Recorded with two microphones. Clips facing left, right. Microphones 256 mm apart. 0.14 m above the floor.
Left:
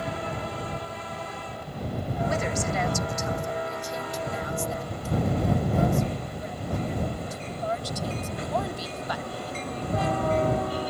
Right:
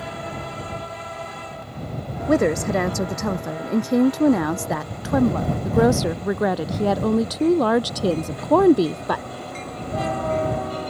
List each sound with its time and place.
2.3 s a woman speaking: 60° right (ahead or behind)